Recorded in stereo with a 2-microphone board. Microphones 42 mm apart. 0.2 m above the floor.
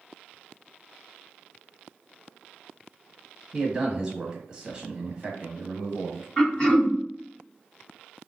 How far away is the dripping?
I don't hear dripping.